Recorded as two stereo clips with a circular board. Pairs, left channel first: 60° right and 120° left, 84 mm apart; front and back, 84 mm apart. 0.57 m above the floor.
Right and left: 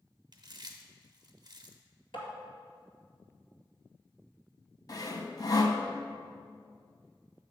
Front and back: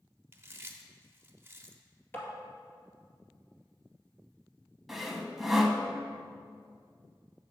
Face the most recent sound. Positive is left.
turn(degrees=-95)